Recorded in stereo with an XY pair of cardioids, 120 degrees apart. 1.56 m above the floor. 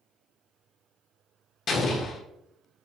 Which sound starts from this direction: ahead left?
An explosion, at 1.7 s.